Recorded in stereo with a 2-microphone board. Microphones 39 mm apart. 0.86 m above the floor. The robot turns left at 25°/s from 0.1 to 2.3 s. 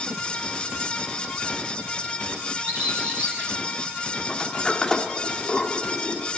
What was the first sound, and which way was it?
A bird, 35° right (ahead or behind).